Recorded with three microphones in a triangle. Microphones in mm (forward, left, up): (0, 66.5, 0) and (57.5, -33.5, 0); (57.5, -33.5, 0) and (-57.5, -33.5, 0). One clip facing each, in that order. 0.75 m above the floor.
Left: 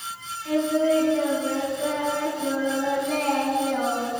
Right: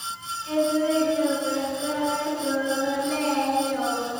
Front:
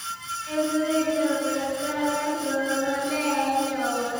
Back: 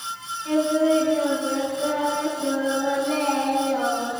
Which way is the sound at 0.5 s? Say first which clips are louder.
Left 1 dB, back 5 dB; 155° left.